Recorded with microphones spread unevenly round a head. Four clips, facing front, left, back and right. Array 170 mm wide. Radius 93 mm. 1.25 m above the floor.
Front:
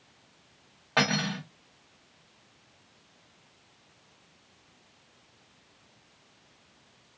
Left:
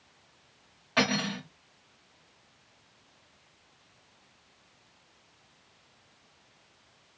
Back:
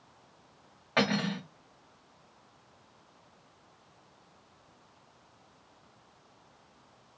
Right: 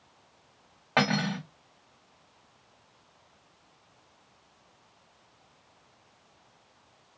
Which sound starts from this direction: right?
Cutlery clinking, at 1.0 s.